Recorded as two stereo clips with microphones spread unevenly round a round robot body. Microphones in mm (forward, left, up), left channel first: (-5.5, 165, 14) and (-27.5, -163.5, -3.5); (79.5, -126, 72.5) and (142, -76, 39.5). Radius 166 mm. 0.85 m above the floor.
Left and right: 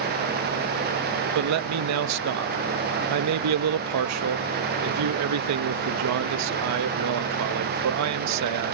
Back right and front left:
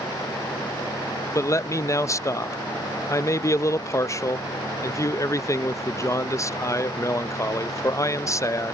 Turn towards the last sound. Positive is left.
turn(degrees=-75)